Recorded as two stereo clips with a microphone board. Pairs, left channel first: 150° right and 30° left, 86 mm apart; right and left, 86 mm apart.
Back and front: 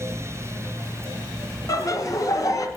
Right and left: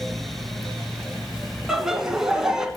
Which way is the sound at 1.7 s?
175° left.